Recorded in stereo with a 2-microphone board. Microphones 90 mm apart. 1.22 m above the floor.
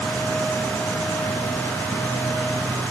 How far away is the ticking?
No ticking in this recording.